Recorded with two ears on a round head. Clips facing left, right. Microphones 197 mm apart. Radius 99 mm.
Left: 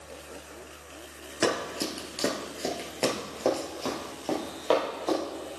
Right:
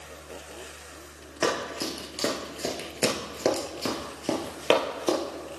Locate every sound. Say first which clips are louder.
1.4 s running footsteps: even; 15° left (ahead or behind), 1.4 m; by 5.2 s 40° right (ahead or behind), 1.8 m